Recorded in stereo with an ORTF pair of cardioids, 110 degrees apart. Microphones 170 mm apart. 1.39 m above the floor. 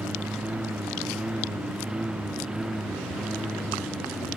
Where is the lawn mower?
5° right; by 4.4 s straight ahead.